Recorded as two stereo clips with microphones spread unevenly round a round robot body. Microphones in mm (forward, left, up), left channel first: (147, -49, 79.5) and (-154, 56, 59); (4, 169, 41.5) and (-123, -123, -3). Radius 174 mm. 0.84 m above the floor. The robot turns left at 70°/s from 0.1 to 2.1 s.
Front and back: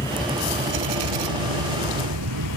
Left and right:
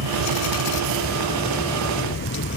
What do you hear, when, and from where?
0.0 s a vehicle: 100° right; by 2.6 s 120° left